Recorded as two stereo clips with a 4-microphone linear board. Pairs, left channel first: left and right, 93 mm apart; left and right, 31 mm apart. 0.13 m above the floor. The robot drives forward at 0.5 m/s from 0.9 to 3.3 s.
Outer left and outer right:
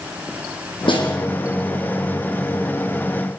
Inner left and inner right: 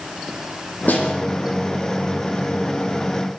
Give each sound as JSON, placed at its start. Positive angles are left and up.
{"t": 0.9, "sound": "a snare drum", "side_deg": 60, "distance_m": 7.0}